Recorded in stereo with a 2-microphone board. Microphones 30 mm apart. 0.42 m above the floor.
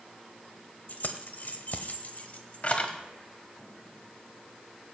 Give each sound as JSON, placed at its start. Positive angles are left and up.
{"t": 0.9, "sound": "keys jangling", "side_deg": 60, "distance_m": 1.2}